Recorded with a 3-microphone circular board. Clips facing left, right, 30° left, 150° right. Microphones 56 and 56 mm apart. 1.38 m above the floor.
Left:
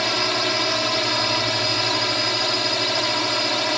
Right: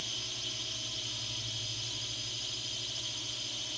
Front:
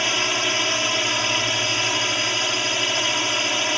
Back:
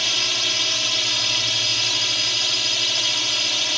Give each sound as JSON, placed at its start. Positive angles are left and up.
{"t": 0.0, "sound": "a drone", "azimuth_deg": 90}